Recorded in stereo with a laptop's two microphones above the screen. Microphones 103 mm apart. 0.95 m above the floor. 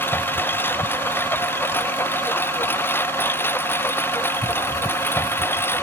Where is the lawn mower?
20° left (ahead or behind).